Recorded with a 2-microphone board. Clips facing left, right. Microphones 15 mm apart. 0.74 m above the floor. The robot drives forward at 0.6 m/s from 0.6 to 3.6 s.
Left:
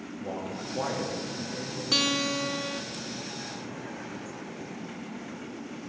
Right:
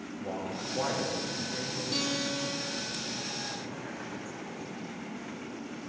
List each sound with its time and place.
0.2 s a man speaking: centre (ahead or behind), 1.0 m
1.9 s a guitar: 50° left (ahead or behind), 0.7 m; by 2.8 s 55° left (ahead or behind), 0.7 m